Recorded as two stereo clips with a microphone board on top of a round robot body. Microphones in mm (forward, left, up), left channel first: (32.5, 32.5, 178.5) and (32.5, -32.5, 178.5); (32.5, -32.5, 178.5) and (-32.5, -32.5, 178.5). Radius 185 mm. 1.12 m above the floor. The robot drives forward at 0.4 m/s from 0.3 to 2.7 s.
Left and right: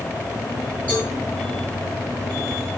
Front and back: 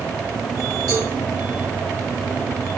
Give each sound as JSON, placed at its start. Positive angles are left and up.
{"t": 0.9, "sound": "a cowbell", "azimuth_deg": 155, "distance_m": 6.5}